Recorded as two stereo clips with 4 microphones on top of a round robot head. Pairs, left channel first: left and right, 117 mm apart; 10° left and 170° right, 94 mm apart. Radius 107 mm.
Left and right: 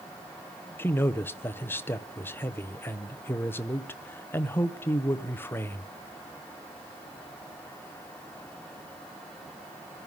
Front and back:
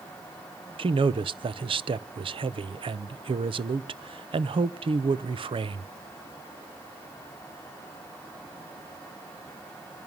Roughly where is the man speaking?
Behind.